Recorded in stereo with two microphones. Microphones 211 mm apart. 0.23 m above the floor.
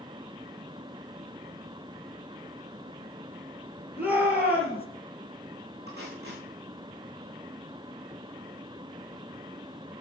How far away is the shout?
About 5.5 m.